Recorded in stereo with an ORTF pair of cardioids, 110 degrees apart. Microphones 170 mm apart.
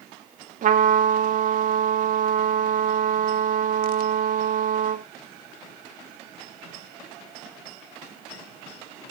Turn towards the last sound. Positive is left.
turn(degrees=-50)